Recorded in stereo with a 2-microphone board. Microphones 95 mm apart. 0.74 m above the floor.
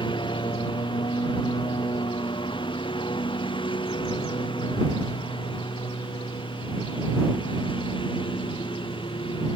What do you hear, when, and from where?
0.0 s a lawn mower: 55° left (ahead or behind)